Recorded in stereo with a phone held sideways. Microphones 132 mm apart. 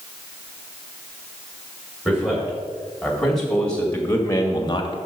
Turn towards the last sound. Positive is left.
turn(degrees=40)  # may be behind; listen again after turning